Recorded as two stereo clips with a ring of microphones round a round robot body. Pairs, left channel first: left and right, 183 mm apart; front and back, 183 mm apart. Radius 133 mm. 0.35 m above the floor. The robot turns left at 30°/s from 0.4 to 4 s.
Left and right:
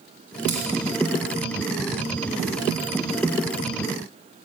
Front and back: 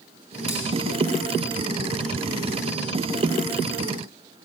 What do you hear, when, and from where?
0.5 s scissors: 140° right, 1.2 m; by 0.6 s 145° right, 1.2 m